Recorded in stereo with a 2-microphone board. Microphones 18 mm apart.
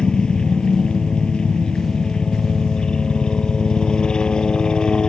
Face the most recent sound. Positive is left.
turn(degrees=60)  # may be behind; listen again after turning